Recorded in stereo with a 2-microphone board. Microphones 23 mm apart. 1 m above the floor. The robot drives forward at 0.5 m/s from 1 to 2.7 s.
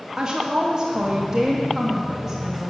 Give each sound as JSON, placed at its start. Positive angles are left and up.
{"t": 0.2, "sound": "a woman speaking", "side_deg": -35, "distance_m": 1.2}